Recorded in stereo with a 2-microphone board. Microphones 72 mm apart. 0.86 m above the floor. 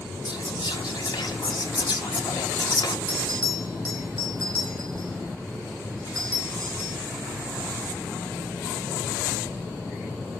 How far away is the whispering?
About 1.5 m.